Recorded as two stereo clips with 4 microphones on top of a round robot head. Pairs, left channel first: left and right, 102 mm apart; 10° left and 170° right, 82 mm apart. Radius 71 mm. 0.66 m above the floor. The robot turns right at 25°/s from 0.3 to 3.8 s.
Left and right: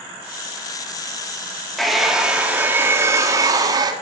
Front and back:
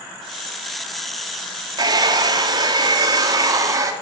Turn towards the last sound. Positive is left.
turn(degrees=-130)